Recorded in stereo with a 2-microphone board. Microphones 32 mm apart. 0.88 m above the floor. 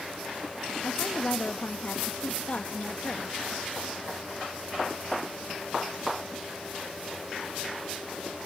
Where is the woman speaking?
50° left (ahead or behind), 1.2 m.